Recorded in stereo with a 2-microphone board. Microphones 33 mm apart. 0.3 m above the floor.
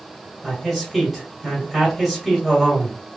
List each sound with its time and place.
0.4 s a man speaking: 5° left (ahead or behind), 1.6 m